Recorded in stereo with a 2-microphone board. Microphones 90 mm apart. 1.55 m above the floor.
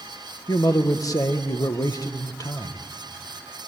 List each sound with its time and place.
0.5 s a man speaking: 40° left (ahead or behind), 1.7 m